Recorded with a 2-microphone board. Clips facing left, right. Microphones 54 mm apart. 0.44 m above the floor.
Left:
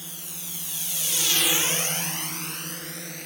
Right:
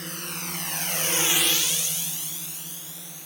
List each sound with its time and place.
0.0 s a drone: 65° right (ahead or behind); by 3.2 s 65° left (ahead or behind)